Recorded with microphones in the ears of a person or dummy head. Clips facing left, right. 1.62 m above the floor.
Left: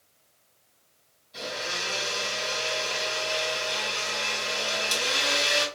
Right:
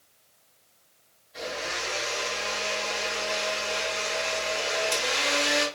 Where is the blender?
60° left (ahead or behind), 2 m.